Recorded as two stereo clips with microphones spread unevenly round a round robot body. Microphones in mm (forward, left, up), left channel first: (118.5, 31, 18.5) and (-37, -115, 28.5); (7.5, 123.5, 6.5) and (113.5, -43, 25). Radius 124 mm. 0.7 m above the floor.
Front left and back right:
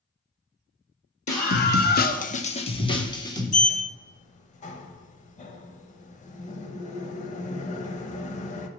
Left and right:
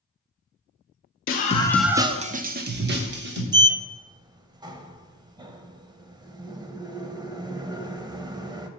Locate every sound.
1.3 s a scream: 95° left, 0.8 m; by 3.4 s 30° right, 1.8 m
3.5 s a sliding door: straight ahead, 0.6 m